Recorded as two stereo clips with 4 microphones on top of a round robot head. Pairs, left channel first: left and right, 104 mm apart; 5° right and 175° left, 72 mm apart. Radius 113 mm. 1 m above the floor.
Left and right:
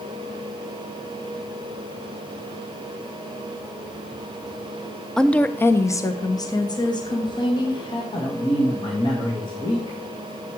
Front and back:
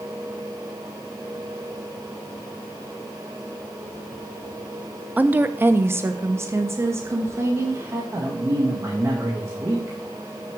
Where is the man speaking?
130° left, 1.9 m.